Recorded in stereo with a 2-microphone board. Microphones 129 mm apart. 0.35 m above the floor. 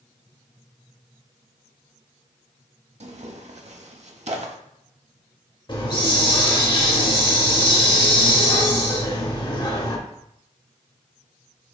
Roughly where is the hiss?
Left.